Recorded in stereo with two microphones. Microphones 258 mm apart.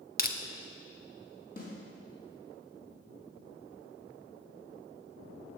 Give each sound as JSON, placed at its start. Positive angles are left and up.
{"t": 0.2, "sound": "crushing", "side_deg": 35, "distance_m": 0.8}
{"t": 1.6, "sound": "a snare drum", "side_deg": 35, "distance_m": 4.0}